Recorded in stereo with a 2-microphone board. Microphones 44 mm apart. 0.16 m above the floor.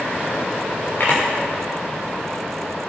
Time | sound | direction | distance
1.0 | a camera shutter | 50° left (ahead or behind) | 5 m